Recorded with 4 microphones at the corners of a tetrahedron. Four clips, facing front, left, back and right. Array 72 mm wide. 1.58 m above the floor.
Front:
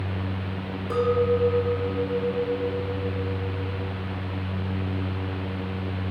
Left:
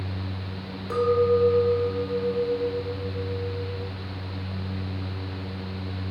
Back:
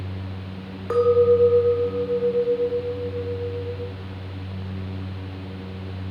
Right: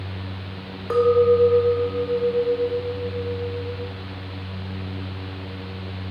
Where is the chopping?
No chopping in this recording.